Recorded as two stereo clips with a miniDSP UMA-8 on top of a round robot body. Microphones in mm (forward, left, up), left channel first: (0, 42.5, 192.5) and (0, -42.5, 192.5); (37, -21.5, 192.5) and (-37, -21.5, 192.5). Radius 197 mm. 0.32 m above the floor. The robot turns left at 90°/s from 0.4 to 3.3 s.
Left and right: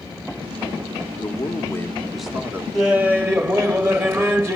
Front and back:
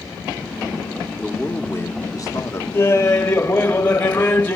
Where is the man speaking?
90° left, 1.5 m; by 2.6 s 40° right, 1.5 m.